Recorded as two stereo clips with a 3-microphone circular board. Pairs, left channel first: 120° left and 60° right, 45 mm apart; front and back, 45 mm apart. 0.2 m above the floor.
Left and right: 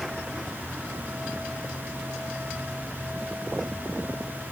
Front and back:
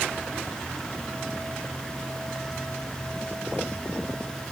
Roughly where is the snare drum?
No snare drum in this recording.